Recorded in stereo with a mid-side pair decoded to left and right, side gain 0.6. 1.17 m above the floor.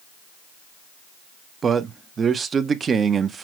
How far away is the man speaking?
About 0.7 m.